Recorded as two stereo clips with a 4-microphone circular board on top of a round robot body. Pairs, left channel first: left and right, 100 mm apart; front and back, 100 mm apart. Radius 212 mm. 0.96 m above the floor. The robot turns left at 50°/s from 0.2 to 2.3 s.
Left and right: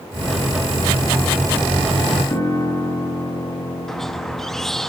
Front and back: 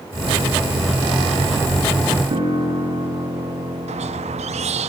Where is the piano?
150° left, 8.5 m.